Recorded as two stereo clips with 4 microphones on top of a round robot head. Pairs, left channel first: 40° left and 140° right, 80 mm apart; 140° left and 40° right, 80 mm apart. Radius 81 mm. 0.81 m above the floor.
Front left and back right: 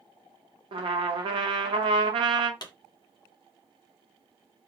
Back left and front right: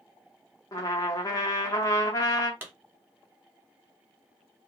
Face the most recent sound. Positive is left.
turn(degrees=25)